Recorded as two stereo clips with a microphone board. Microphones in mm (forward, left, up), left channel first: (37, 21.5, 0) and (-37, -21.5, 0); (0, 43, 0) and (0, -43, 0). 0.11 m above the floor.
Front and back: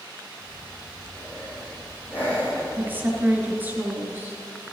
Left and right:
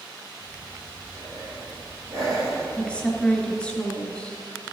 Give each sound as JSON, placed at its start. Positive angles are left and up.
{"t": 0.4, "sound": "breathing", "azimuth_deg": -35, "distance_m": 3.5}
{"t": 2.8, "sound": "a woman speaking", "azimuth_deg": 160, "distance_m": 1.8}